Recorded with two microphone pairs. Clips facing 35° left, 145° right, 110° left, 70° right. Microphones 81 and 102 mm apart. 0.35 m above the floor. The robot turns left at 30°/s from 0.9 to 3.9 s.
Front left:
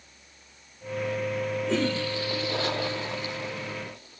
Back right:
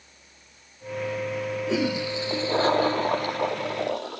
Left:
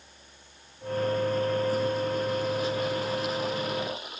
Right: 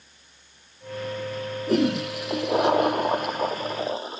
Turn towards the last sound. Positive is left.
turn(degrees=-125)